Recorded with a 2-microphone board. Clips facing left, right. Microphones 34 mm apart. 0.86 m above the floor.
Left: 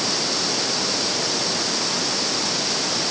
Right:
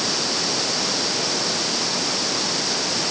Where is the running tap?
No running tap in this recording.